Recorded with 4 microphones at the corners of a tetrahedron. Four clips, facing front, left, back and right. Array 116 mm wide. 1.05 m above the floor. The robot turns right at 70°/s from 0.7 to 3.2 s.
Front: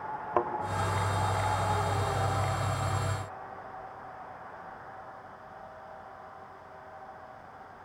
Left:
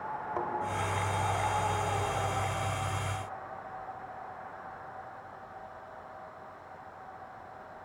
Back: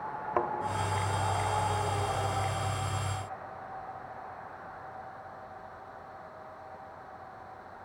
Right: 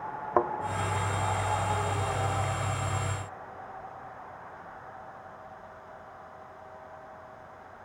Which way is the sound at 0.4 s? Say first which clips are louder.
Right 10 dB, front 2 dB; 85° right.